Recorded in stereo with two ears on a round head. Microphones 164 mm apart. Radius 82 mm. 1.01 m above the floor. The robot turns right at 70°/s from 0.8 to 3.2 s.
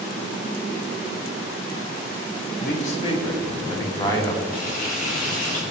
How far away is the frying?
About 5 m.